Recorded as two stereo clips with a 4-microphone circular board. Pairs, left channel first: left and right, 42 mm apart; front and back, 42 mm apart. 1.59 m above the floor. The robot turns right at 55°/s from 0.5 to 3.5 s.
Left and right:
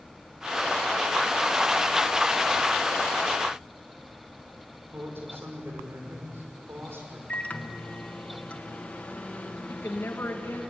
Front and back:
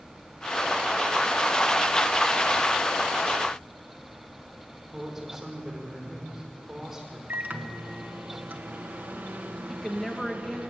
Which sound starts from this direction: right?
A man speaking, at 4.9 s.